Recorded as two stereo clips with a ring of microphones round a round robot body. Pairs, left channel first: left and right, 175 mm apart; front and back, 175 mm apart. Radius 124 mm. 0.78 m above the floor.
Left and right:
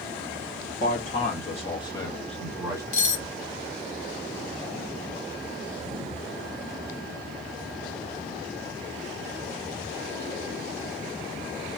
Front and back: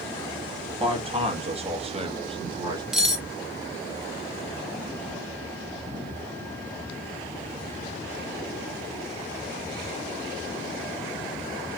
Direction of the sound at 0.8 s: 125° left.